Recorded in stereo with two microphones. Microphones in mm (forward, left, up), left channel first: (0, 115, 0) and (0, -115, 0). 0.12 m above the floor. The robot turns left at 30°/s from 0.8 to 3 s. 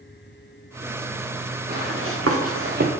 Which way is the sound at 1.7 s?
40° right (ahead or behind).